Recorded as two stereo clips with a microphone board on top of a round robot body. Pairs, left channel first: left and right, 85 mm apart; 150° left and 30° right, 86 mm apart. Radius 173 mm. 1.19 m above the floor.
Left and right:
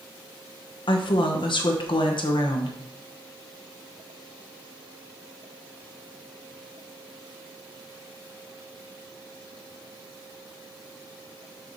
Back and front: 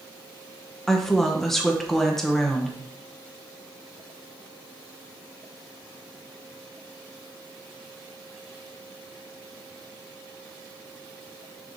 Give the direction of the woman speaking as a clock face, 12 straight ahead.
10 o'clock.